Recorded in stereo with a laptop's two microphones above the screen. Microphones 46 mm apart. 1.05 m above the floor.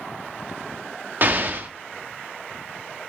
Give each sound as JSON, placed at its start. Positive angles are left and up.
{"t": 1.2, "sound": "an explosion", "side_deg": -45, "distance_m": 1.0}